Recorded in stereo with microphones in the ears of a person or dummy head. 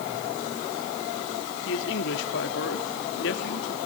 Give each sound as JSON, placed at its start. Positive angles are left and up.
{"t": 1.6, "sound": "a man speaking", "side_deg": 70, "distance_m": 3.0}